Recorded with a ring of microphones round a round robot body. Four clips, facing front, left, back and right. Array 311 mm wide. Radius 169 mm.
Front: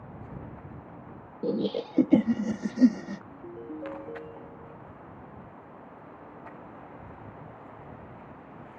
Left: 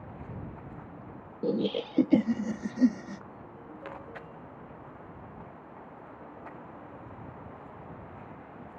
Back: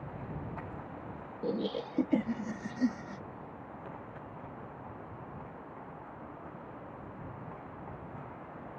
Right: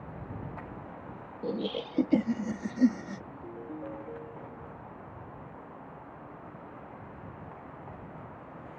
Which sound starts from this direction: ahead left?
Laughter, at 1.4 s.